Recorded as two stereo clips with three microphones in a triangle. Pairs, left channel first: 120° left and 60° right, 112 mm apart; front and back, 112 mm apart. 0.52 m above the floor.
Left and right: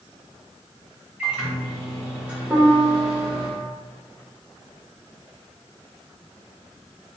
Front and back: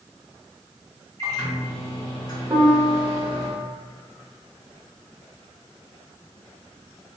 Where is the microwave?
15° left, 1.2 m.